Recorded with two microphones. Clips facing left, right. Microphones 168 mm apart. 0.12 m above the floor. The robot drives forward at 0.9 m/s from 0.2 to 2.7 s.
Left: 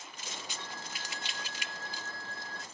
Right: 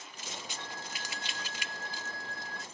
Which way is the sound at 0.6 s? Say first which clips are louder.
Right 1 dB; centre (ahead or behind).